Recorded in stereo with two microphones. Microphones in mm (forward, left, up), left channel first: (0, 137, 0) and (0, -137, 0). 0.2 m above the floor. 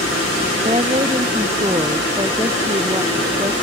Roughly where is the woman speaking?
Right.